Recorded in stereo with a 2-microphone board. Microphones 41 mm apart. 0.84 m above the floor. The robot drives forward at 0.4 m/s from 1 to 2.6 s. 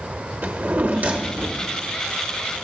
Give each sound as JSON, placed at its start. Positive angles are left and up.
{"t": 0.4, "sound": "a drawer", "side_deg": -45, "distance_m": 0.9}